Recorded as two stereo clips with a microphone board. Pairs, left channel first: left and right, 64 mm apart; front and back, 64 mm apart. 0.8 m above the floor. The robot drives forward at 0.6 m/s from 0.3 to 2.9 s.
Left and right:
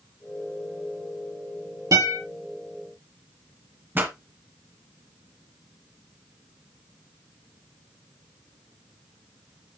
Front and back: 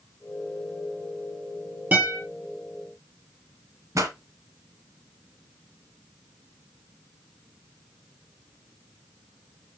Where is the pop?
145° right, 1.8 m.